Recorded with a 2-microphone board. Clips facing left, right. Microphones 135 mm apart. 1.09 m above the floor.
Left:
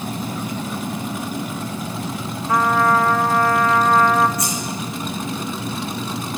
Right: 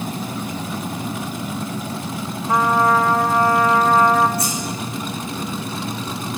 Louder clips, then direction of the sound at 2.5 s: Even; 20° right (ahead or behind).